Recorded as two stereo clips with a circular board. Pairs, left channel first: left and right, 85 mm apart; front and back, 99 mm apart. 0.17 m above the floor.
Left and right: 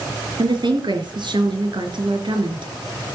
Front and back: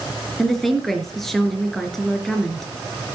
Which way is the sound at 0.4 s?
90° right.